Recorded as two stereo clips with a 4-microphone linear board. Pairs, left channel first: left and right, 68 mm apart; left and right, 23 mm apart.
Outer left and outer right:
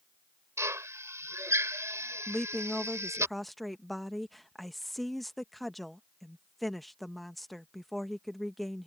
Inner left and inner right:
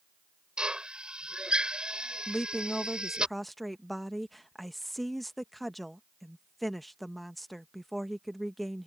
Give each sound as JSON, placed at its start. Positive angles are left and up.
{"t": 0.6, "sound": "a drill", "side_deg": -45}
{"t": 2.3, "sound": "a woman speaking", "side_deg": 5}